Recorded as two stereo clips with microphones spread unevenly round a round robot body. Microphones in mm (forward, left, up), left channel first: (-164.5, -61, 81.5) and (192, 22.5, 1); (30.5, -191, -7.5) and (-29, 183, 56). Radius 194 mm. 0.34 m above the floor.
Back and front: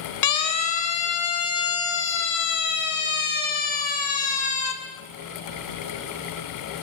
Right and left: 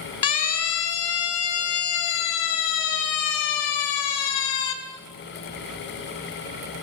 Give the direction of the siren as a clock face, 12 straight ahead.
4 o'clock.